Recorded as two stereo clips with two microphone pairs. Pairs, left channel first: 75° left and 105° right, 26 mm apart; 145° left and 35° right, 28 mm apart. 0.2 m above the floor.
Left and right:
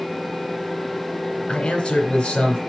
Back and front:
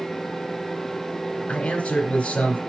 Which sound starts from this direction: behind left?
A man speaking, at 1.5 s.